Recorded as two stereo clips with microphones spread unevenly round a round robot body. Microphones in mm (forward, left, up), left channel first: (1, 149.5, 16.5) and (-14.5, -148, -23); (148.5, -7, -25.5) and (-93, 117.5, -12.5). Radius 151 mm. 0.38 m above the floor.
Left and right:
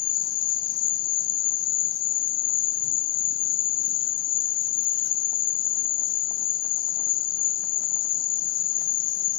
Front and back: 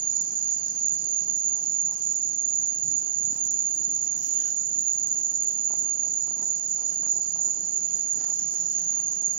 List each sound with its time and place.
0.0 s an insect: 115° left, 1.1 m